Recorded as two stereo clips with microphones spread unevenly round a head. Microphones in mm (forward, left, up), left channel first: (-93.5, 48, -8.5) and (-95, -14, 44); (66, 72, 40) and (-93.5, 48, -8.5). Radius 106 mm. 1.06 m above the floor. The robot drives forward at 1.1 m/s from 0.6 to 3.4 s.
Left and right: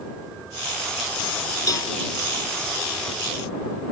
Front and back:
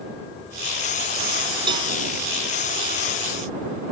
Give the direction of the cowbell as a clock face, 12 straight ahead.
8 o'clock.